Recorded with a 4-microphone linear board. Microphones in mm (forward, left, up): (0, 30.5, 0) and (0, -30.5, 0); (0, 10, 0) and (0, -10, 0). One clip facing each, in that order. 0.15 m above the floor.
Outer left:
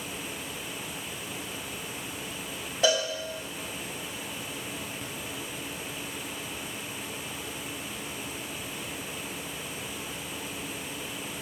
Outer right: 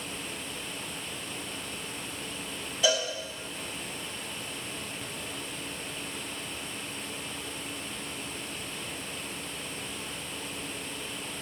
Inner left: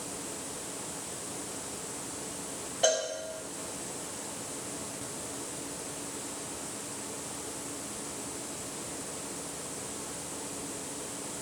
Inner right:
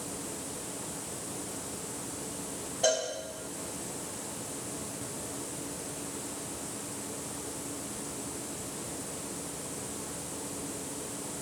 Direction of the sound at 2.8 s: 45° left (ahead or behind).